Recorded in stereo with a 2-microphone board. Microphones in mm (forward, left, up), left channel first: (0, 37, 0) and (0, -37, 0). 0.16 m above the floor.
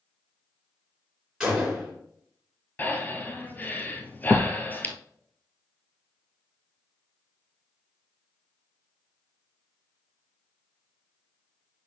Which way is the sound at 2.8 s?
25° left (ahead or behind).